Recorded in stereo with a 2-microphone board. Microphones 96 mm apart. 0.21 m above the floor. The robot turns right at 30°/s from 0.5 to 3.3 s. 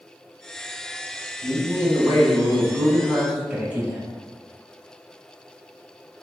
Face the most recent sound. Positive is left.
turn(degrees=-10)  # may be behind; listen again after turning